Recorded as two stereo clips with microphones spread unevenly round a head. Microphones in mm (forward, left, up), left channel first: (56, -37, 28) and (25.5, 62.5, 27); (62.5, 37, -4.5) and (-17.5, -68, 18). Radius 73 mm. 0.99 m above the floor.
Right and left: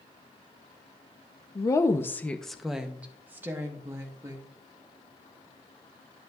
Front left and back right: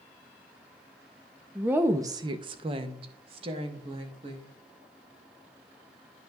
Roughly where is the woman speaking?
Ahead right.